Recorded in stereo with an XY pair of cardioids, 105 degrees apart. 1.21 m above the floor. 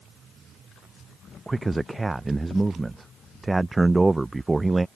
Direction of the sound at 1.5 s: 15° right.